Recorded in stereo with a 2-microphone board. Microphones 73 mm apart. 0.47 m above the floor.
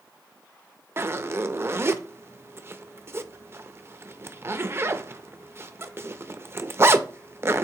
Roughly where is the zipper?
Right.